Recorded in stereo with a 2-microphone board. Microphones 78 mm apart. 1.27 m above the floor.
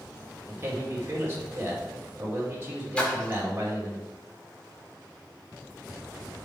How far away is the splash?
About 1.8 m.